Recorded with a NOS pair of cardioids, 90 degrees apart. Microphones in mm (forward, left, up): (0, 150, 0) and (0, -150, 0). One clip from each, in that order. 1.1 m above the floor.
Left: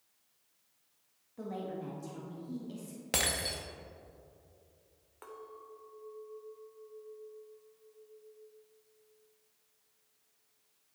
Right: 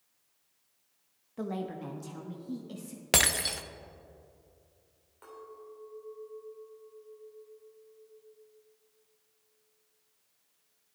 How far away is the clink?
About 2.5 m.